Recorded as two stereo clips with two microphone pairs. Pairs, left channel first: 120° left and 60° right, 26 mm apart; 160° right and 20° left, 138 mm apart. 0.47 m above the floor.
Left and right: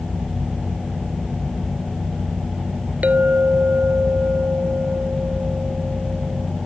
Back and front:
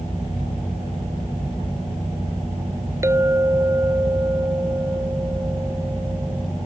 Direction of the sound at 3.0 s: 45° right.